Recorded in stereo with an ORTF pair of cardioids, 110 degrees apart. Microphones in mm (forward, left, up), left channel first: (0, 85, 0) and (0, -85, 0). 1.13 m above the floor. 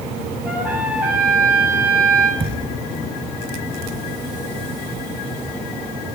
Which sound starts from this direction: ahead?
A trumpet, at 0.5 s.